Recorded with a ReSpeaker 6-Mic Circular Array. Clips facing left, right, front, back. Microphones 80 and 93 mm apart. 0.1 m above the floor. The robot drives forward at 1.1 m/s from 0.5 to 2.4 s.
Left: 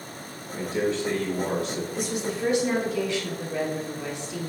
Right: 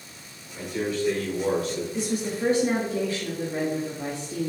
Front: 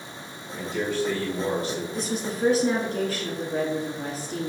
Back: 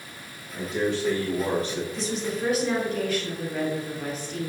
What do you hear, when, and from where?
0.5 s a man speaking: 115° left, 1.4 m; by 1.8 s 160° left, 2 m
1.9 s a woman speaking: 30° right, 2 m; by 4.5 s 45° right, 1.7 m